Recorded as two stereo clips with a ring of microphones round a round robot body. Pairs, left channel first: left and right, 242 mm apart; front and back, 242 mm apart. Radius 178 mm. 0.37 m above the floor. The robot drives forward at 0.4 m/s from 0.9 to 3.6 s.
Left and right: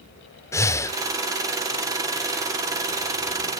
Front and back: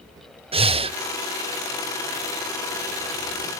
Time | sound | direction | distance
0.5 | breathing | 150° left | 0.9 m